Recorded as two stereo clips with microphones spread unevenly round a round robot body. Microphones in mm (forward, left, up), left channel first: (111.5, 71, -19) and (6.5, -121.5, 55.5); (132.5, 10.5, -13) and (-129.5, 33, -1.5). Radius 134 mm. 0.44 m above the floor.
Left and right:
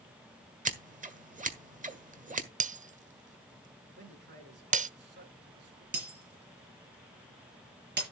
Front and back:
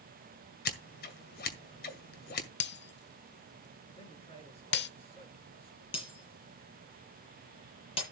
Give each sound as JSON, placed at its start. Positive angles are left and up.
{"t": 0.7, "sound": "scissors", "azimuth_deg": -55, "distance_m": 1.7}
{"t": 2.6, "sound": "breaking glass", "azimuth_deg": -55, "distance_m": 0.8}
{"t": 4.0, "sound": "a man speaking", "azimuth_deg": -75, "distance_m": 5.0}
{"t": 5.9, "sound": "breaking glass", "azimuth_deg": -75, "distance_m": 7.0}